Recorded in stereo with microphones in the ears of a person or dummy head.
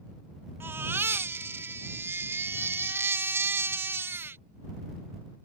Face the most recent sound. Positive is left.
turn(degrees=-10)  # may be behind; listen again after turning